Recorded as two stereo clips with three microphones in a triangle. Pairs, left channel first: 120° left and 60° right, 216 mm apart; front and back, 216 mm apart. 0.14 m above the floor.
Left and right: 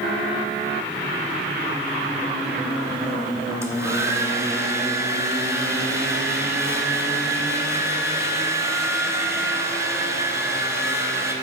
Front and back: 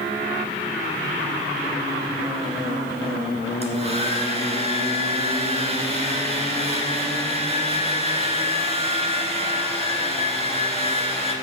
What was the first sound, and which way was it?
A hair dryer, 135° right.